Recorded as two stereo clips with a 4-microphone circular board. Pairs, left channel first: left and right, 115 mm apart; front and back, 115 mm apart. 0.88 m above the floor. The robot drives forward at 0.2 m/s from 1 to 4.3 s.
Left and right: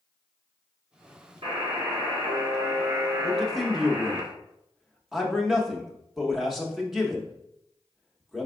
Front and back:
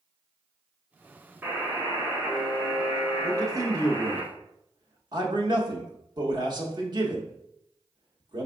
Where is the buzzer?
110° right, 1.4 m; by 4.2 s 130° right, 1.7 m.